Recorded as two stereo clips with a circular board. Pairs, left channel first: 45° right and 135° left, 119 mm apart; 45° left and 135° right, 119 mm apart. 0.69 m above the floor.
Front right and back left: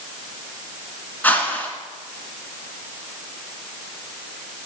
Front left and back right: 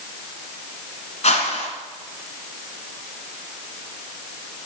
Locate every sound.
1.2 s a whoosh: 30° left, 1.2 m